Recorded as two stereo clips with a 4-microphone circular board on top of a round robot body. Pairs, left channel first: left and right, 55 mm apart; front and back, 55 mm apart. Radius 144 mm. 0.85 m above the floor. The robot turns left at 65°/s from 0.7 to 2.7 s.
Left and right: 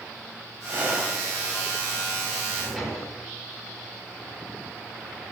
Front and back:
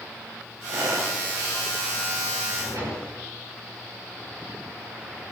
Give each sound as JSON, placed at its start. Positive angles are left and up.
{"t": 0.7, "sound": "breathing", "azimuth_deg": -140, "distance_m": 4.0}
{"t": 2.4, "sound": "a drawer", "azimuth_deg": -160, "distance_m": 6.5}